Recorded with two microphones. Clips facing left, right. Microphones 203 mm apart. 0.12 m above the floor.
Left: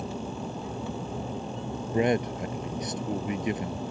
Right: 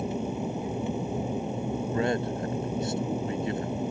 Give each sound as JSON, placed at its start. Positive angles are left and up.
{"t": 0.0, "sound": "an aircraft", "side_deg": -20}
{"t": 1.9, "sound": "a man speaking", "side_deg": 20}